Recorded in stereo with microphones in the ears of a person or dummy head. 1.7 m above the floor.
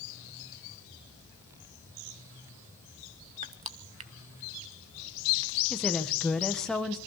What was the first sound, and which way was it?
Crushing, 35° right (ahead or behind).